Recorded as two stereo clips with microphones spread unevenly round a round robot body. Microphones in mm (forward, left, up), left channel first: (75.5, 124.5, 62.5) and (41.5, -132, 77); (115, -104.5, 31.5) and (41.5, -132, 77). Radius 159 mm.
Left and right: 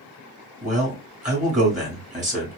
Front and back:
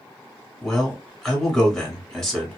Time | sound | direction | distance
0.6 | a man speaking | 40° right | 1.7 m